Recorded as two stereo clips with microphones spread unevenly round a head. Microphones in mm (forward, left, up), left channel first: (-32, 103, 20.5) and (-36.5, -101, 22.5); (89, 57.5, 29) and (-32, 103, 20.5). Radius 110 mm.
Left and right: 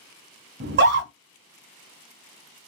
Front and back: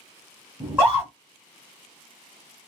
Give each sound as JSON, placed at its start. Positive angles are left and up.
{"t": 0.6, "sound": "a scream", "azimuth_deg": -120, "distance_m": 1.3}